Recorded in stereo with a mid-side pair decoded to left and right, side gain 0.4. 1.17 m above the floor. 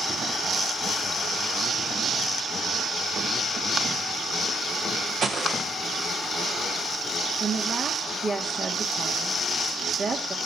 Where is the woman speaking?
50° right, 3 m.